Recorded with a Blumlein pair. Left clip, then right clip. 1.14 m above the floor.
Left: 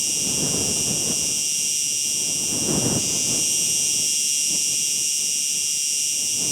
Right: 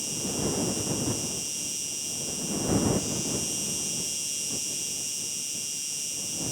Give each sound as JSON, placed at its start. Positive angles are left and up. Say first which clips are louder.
{"t": 0.0, "sound": "an insect", "louder": "left 7 dB", "azimuth_deg": 25}